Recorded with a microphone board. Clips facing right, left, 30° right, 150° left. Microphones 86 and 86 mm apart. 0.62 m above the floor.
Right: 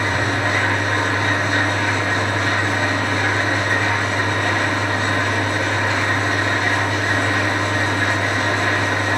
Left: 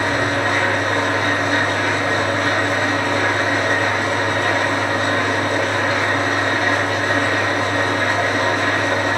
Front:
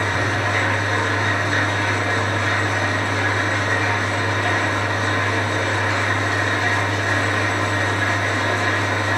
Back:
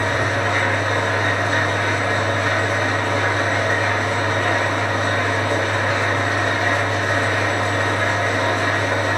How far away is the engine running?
About 1.2 m.